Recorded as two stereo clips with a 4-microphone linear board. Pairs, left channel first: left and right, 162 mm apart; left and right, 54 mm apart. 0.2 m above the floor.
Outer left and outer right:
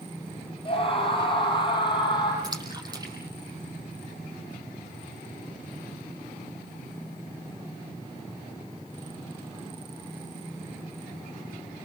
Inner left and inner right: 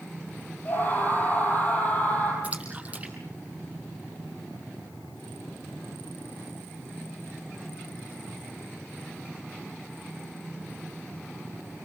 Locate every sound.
0.7 s a scream: 35° left (ahead or behind), 8.5 m; by 2.3 s 30° left (ahead or behind), 8.5 m
2.4 s a splash: 25° right (ahead or behind), 5 m